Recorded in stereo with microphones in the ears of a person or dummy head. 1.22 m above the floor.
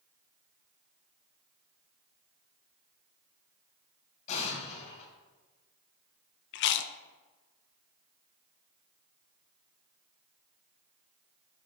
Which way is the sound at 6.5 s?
65° left (ahead or behind).